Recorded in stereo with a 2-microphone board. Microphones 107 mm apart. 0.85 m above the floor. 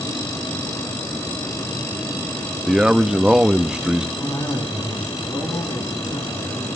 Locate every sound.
2.7 s a man speaking: 5° right (ahead or behind), 0.8 m
4.2 s a cough: 40° left (ahead or behind), 10 m